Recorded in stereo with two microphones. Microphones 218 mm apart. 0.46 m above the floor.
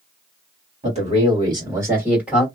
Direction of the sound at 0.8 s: 30° right (ahead or behind).